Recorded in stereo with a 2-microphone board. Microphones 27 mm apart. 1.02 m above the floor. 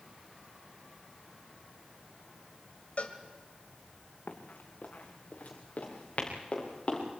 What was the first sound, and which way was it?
A cowbell, 55° left (ahead or behind).